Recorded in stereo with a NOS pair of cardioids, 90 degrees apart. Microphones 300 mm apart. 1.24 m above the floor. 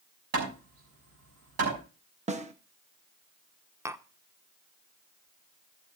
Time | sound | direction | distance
0.3 | hammering | 55° right | 6.5 m
2.3 | a snare drum | 20° right | 1.4 m
3.9 | tapping | 10° right | 0.9 m